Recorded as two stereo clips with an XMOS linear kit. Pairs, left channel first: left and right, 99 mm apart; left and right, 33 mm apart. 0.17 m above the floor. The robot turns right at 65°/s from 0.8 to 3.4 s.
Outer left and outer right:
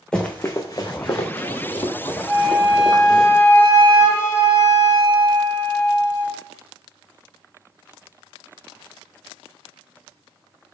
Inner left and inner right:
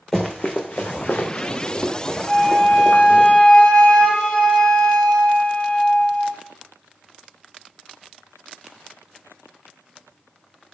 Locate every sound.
0.1 s running footsteps: 10° left (ahead or behind), 0.8 m; by 3.3 s 65° right (ahead or behind), 2 m
2.3 s a flute: 60° left, 1.1 m; by 6.4 s 130° left, 1.1 m